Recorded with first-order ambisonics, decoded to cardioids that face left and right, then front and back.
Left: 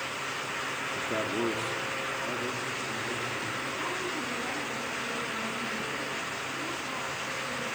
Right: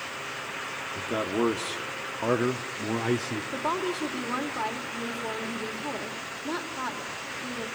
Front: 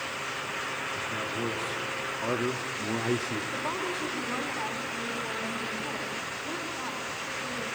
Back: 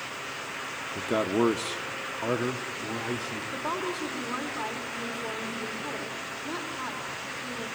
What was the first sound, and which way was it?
A man speaking, 170° right.